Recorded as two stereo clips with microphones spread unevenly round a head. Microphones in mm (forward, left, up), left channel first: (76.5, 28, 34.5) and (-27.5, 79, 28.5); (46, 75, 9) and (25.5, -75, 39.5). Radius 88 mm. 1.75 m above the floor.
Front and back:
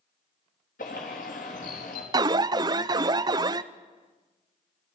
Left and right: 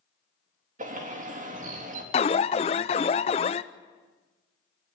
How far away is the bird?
About 4 m.